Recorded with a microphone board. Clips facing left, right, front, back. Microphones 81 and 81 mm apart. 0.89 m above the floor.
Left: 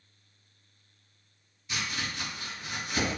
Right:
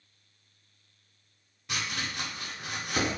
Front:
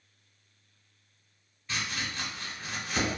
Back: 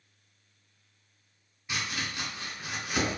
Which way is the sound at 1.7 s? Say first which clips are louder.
Even, even; 105° right.